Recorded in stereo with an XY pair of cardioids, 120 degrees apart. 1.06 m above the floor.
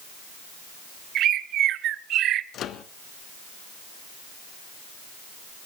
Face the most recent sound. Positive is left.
turn(degrees=60)